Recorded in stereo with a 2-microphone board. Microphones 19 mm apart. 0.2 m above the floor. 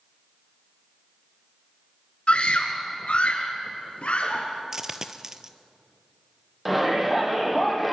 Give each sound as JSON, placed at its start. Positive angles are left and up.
{"t": 2.3, "sound": "a scream", "side_deg": 60, "distance_m": 2.0}
{"t": 4.7, "sound": "a dropped coin", "side_deg": -30, "distance_m": 1.3}
{"t": 6.7, "sound": "a shout", "side_deg": -5, "distance_m": 7.0}